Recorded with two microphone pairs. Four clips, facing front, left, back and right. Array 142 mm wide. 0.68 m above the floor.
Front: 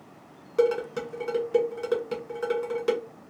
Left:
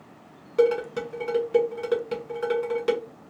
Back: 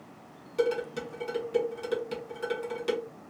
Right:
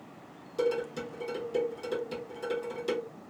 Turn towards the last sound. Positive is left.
turn(degrees=40)